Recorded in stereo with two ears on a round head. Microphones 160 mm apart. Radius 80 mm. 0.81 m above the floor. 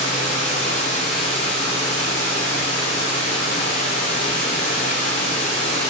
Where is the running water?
40° left (ahead or behind), 1.7 m.